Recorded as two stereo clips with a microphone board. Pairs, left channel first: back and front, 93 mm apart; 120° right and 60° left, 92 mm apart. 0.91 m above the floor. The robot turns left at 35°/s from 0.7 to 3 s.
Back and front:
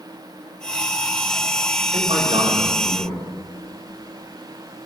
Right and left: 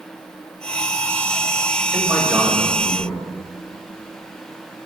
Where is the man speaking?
5° right, 4.5 m; by 3.2 s 45° right, 4.5 m.